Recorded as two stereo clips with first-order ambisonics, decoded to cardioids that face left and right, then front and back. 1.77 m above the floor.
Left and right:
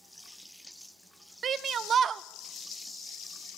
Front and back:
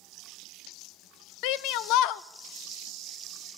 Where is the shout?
30° right, 0.9 m.